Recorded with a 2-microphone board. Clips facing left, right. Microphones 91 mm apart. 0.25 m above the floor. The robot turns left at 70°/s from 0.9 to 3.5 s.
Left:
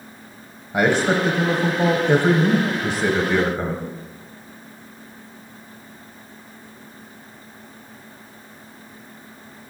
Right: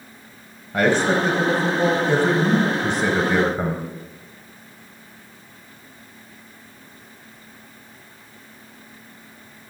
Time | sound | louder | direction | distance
0.7 | a man speaking | even | 10° left (ahead or behind) | 1.0 m